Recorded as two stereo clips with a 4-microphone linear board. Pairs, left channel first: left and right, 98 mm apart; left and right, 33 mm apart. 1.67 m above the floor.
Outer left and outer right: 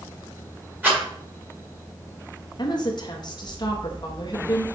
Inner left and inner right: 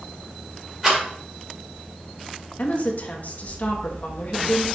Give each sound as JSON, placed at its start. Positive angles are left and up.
{"t": 0.8, "sound": "a rattle", "side_deg": -20, "distance_m": 2.5}
{"t": 2.6, "sound": "a woman speaking", "side_deg": 45, "distance_m": 0.8}